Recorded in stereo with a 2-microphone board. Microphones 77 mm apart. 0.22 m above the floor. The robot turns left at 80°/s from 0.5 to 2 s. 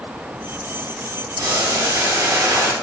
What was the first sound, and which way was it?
Boiling, 65° right.